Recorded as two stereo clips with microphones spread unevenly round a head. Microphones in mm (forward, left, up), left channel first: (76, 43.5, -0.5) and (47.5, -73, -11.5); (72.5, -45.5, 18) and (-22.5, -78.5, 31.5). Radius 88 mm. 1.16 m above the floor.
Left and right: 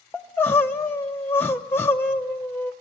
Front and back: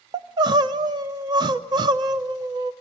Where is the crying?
155° left, 0.7 m.